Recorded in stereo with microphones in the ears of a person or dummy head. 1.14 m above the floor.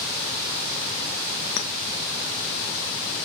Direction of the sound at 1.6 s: 70° left (ahead or behind).